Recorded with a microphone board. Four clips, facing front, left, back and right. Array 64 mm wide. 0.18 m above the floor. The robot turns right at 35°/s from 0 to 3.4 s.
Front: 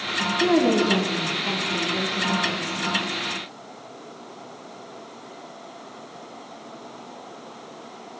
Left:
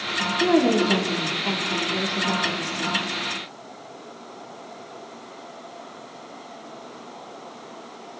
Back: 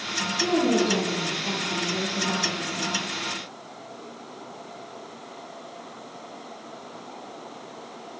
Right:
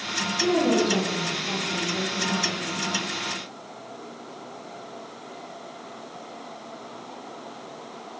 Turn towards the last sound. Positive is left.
turn(degrees=155)